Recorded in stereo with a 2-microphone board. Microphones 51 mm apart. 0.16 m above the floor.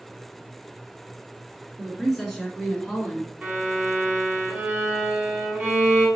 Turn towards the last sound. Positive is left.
turn(degrees=-20)  # may be behind; listen again after turning